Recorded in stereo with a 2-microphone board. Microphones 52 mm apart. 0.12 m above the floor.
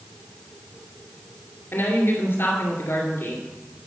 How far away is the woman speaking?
About 2.5 m.